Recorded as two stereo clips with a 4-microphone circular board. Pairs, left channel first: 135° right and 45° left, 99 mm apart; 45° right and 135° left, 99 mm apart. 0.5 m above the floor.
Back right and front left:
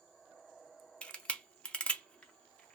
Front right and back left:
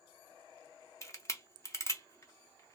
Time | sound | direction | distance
1.0 | a camera shutter | 65° right | 0.6 m